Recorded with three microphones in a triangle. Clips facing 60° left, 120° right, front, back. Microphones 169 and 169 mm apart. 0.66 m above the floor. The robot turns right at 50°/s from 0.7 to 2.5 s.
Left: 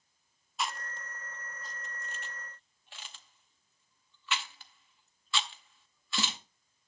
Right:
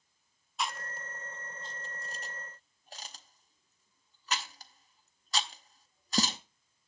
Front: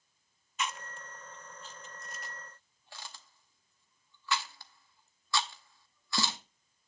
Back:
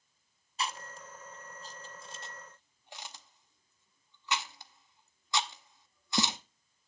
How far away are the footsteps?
No footsteps in this recording.